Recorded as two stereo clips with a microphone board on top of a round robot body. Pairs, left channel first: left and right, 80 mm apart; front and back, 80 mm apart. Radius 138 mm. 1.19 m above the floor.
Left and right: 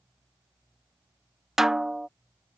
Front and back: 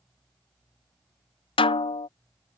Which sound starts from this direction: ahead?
A snare drum, at 1.6 s.